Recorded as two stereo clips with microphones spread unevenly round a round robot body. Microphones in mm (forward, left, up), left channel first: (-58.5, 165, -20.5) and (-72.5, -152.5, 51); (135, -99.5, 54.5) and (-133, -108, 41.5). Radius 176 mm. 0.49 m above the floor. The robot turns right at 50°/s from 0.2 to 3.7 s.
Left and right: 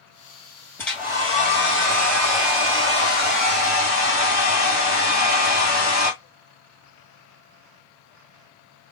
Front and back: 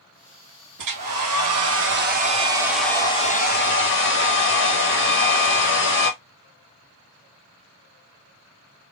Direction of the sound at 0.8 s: 175° left.